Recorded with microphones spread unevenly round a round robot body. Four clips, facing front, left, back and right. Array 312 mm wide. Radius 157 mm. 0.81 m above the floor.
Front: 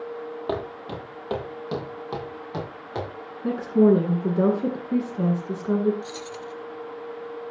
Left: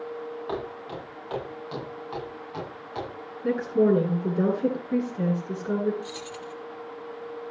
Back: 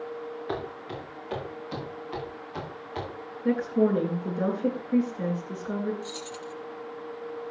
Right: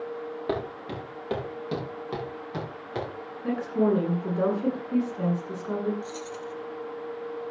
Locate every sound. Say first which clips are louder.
0.5 s footsteps: right 4 dB, front 5 dB; 45° right, 10 m; by 3.1 s 35° right, 12 m
3.4 s a woman speaking: left 3 dB, front 5 dB; 20° left, 9 m
6.0 s keys jangling: right 1 dB, front 2 dB; 60° left, 1.3 m